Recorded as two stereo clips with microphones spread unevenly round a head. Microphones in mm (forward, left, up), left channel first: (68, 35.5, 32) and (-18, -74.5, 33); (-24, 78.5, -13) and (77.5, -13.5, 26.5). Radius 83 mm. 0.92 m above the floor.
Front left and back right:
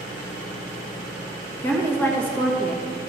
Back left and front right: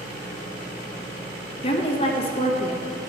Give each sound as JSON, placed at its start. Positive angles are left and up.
{"t": 1.6, "sound": "a woman speaking", "azimuth_deg": 125, "distance_m": 1.4}